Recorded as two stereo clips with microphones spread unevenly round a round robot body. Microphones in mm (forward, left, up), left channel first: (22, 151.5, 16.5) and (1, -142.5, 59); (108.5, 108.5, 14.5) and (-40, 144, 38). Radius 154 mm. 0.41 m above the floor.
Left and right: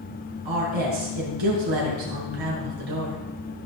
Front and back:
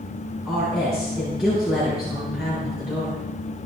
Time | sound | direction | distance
0.5 | a woman speaking | 105° right | 6.5 m